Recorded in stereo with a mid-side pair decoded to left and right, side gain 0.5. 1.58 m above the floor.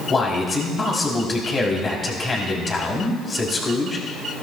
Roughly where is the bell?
No bell in this recording.